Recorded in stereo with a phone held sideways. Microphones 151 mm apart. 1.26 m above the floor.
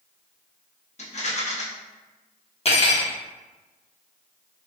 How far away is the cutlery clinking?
About 0.7 m.